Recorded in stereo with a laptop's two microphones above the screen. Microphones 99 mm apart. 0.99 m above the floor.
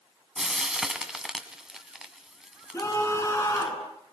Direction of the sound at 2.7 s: 25° left (ahead or behind).